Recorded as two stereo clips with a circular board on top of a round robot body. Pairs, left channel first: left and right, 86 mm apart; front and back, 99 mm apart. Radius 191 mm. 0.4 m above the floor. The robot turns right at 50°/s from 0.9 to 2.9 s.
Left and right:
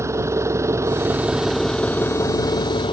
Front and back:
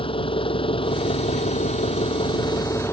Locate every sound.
0.0 s an engine running: 35° right; by 2.9 s 65° left